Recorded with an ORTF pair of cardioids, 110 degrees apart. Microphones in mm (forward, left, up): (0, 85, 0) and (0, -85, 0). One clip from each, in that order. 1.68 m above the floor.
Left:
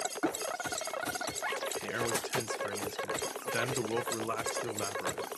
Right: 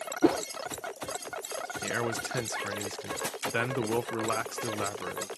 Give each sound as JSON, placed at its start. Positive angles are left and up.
{"t": 0.2, "sound": "a whoosh", "azimuth_deg": -45}
{"t": 1.8, "sound": "a man speaking", "azimuth_deg": -30}